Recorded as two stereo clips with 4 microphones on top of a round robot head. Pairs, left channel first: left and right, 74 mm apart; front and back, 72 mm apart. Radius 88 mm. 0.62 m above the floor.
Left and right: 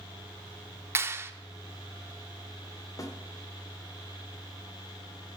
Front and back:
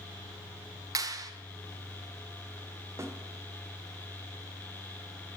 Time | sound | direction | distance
0.9 | a clap | 145° right | 1.1 m
3.0 | a snare drum | 130° left | 1.4 m